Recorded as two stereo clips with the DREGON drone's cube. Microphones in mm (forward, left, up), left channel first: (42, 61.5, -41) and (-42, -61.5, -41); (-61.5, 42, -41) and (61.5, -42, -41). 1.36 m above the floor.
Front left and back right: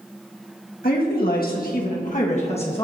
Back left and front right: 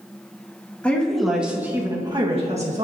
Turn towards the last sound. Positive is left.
turn(degrees=0)